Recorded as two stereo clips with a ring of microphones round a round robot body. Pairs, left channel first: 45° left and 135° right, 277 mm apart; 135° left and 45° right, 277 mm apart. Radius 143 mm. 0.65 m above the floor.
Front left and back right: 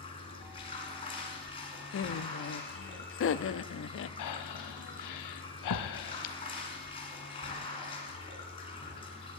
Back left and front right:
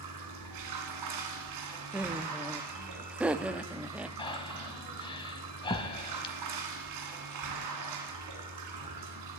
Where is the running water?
25° right, 2.5 m.